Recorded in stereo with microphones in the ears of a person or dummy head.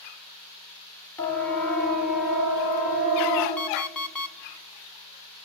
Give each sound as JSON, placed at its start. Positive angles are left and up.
{"t": 1.2, "sound": "a siren", "side_deg": 5, "distance_m": 4.0}
{"t": 3.6, "sound": "an alarm clock", "side_deg": 5, "distance_m": 1.1}